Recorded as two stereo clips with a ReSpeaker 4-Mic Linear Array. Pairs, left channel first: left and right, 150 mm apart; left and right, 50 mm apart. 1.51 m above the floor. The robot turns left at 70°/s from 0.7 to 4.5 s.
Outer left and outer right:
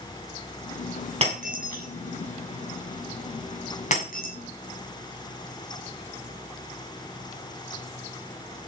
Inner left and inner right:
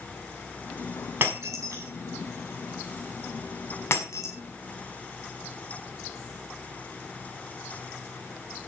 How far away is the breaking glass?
About 7 m.